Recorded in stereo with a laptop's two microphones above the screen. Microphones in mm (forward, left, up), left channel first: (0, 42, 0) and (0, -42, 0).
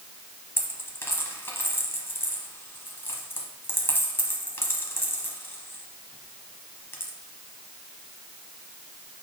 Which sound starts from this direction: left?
A dropped coin, at 0.6 s.